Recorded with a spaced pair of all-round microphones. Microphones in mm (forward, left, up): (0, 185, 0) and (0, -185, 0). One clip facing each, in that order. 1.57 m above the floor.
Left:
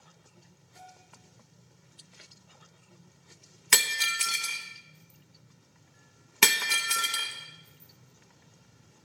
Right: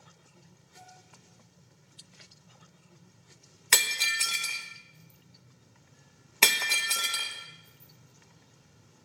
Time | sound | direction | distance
0.8 | a bell | 5° left (ahead or behind) | 6 m
3.7 | breaking glass | 25° left (ahead or behind) | 0.7 m